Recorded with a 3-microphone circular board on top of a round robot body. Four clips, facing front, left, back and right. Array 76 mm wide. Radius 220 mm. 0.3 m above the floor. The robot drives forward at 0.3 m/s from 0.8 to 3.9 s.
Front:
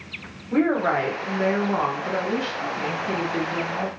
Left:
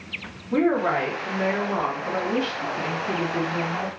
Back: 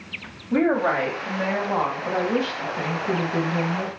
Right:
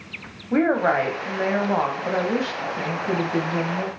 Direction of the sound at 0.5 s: 105° right.